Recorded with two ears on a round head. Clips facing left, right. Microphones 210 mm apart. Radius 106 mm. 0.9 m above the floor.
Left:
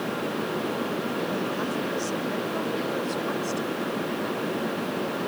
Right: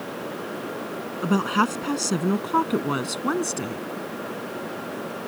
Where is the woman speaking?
85° right; by 3.8 s 75° right (ahead or behind).